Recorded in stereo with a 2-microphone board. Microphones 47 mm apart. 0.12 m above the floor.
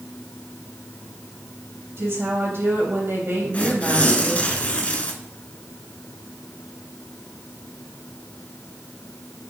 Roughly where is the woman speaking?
Right.